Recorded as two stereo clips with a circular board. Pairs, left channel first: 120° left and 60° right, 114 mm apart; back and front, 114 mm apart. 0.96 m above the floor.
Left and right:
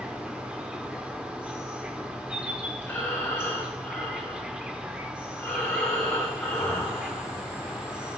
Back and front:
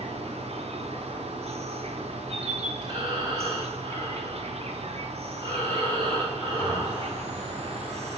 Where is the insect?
20° left, 1.1 m.